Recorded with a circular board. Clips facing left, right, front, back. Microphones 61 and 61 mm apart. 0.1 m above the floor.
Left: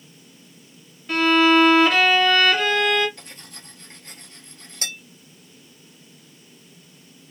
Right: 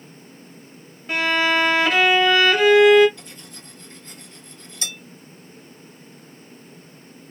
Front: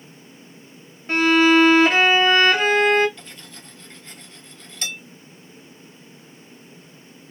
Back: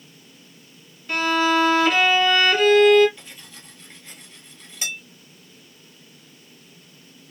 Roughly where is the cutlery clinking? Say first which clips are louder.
Right 1 dB, front 2 dB; left.